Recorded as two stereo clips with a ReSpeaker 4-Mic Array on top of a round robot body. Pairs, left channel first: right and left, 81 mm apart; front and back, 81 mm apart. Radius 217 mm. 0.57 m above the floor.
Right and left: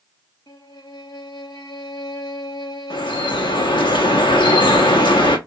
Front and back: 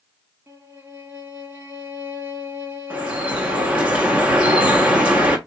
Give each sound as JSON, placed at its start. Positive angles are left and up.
{"t": 0.5, "sound": "a violin", "azimuth_deg": -125, "distance_m": 2.0}
{"t": 2.9, "sound": "dripping", "azimuth_deg": -105, "distance_m": 1.4}